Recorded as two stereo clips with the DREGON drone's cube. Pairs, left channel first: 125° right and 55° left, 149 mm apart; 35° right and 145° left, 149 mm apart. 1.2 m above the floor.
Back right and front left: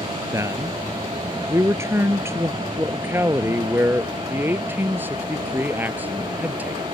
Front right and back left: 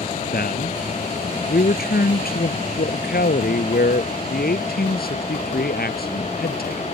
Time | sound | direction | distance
0.3 | a man speaking | 15° right | ?